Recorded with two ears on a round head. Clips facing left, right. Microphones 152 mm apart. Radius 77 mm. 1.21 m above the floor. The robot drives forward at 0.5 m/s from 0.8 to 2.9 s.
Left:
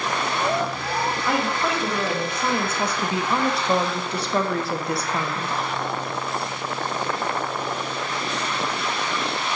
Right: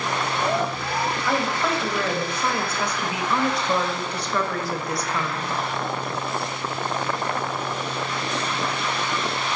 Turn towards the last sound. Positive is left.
turn(degrees=25)  # may be behind; listen again after turning